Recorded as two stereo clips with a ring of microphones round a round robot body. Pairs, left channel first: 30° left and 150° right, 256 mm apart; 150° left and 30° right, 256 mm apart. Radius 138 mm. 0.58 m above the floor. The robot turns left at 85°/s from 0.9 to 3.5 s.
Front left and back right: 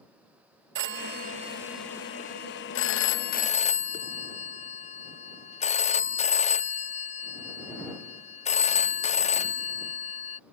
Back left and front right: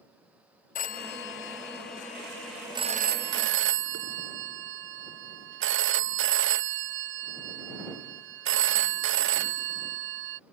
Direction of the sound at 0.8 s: 165° right.